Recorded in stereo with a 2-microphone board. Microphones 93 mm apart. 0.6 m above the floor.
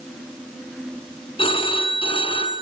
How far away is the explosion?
No explosion in this recording.